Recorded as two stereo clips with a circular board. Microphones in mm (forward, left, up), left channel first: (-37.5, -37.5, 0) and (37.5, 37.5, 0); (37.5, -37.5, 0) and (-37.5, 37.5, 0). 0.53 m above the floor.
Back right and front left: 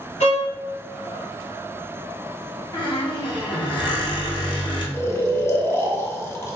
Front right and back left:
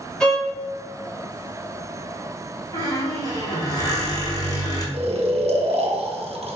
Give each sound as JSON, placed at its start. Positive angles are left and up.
{"t": 0.2, "sound": "a violin", "azimuth_deg": -125, "distance_m": 1.0}
{"t": 2.7, "sound": "a squeak", "azimuth_deg": -95, "distance_m": 1.1}
{"t": 4.9, "sound": "snoring", "azimuth_deg": 155, "distance_m": 0.6}